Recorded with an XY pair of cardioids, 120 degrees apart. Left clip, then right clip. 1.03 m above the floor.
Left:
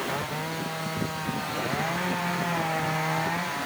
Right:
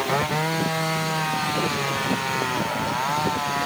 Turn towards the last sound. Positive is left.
No sound to turn to.